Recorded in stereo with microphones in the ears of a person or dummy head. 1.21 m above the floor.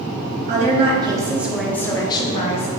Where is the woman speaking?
40° right (ahead or behind), 0.9 m; by 2.7 s 40° left (ahead or behind), 0.9 m.